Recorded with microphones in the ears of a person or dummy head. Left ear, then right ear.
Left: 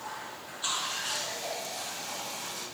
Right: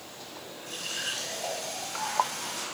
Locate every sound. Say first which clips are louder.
0.7 s a running tap: left 2 dB; 60° right (ahead or behind), 6.5 m